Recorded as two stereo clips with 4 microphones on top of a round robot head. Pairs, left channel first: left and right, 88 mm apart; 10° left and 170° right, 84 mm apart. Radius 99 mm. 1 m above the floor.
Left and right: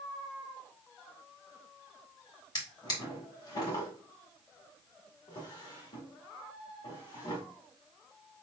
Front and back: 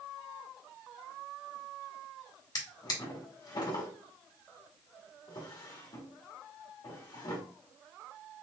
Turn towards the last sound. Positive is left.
turn(degrees=50)